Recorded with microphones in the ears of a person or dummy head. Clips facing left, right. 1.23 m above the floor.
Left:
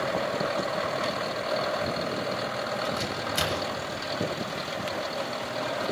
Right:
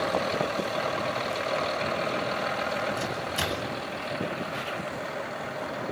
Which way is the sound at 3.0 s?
75° left (ahead or behind).